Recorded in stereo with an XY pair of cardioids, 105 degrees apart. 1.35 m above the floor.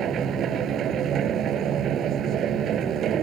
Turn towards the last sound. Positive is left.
turn(degrees=-65)